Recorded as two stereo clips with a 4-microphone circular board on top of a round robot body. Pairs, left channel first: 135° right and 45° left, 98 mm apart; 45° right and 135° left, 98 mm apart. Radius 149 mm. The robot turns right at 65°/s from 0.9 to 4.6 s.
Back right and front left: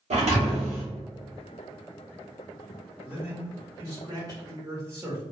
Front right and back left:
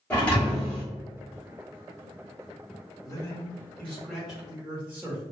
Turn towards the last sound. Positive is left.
turn(degrees=75)